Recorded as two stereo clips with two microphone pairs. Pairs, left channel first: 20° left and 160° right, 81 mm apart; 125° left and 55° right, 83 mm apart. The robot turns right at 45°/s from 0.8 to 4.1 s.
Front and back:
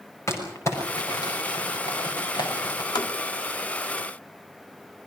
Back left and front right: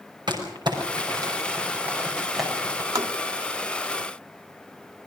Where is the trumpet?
I don't hear a trumpet.